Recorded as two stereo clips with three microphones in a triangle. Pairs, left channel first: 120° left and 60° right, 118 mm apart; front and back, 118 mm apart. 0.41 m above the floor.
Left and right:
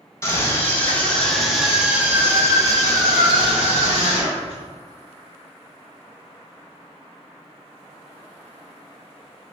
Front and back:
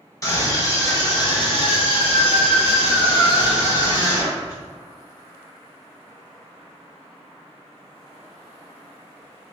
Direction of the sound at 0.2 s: 55° left.